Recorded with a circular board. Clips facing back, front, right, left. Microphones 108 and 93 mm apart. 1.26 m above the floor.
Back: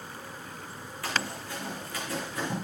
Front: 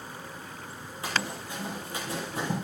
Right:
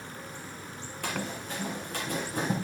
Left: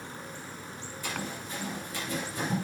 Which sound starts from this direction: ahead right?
Running footsteps, at 1.0 s.